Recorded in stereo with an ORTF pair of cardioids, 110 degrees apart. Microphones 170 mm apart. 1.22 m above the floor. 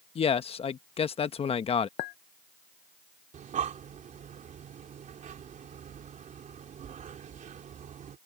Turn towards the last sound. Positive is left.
turn(degrees=-50)